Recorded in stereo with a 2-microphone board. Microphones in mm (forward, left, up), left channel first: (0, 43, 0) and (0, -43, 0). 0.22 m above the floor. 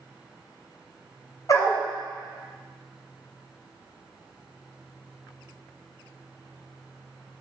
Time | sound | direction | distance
1.5 | a dog barking | 40° left (ahead or behind) | 1.4 m